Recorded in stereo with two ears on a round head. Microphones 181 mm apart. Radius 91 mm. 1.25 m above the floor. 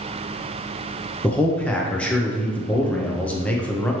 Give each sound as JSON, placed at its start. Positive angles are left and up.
{"t": 1.2, "sound": "a man speaking", "side_deg": 5, "distance_m": 0.6}